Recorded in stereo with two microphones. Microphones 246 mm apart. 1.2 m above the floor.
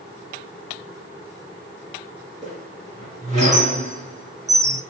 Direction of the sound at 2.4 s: 30° right (ahead or behind).